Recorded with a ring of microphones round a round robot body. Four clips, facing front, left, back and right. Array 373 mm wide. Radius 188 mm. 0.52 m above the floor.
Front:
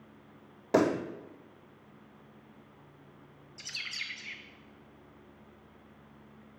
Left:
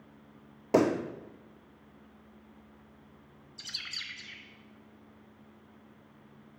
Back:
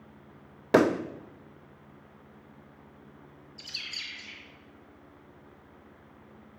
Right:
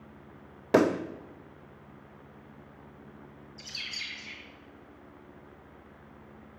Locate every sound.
0.7 s a pop: 160° right, 0.6 m
3.6 s a bird: 60° left, 1.0 m